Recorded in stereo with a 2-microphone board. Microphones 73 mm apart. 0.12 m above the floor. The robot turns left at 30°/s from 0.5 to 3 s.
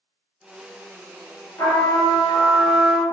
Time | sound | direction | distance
1.6 | a trumpet | 70° left | 1.2 m